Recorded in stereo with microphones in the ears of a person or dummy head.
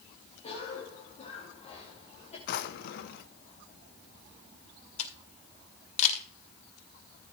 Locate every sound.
0.4 s a cough: 40° left (ahead or behind), 2.5 m
2.5 s a drawer: 55° left (ahead or behind), 1.0 m
5.0 s a camera shutter: 40° left (ahead or behind), 2.5 m